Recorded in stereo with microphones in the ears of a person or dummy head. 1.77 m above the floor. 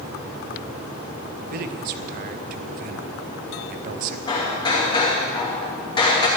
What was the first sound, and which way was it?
A man speaking, 55° right (ahead or behind).